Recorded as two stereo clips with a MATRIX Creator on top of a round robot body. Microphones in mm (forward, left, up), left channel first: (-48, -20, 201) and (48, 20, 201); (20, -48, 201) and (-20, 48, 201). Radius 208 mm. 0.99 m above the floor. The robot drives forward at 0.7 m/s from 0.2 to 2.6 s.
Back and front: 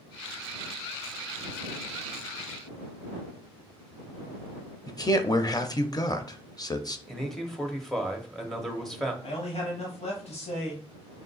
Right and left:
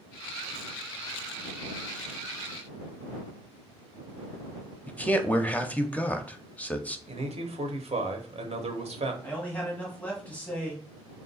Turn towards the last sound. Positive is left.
turn(degrees=-145)